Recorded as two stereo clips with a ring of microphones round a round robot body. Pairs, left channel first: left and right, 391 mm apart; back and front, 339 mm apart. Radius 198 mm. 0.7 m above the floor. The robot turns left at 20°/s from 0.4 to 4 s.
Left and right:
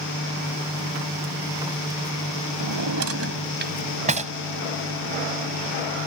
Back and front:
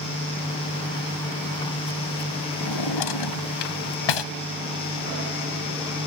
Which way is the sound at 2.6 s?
135° right.